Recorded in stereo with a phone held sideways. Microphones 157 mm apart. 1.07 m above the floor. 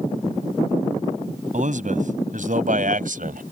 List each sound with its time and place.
1.5 s a man speaking: 55° right (ahead or behind); by 3.4 s 60° right (ahead or behind)